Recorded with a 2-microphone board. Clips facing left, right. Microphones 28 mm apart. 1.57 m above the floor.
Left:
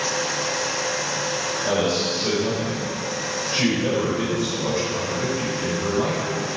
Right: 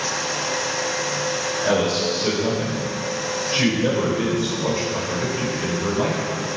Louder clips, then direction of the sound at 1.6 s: Right 2 dB; 10° right (ahead or behind).